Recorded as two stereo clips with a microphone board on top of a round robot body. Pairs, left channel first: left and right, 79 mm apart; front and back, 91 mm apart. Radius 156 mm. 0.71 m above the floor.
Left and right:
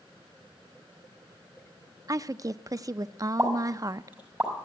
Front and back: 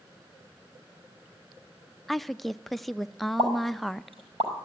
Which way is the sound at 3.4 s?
160° right.